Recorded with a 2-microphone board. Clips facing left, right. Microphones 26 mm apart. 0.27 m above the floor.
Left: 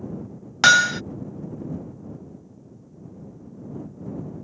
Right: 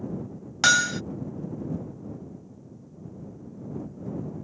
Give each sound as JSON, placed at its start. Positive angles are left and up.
{"t": 0.6, "sound": "hammering", "side_deg": 25}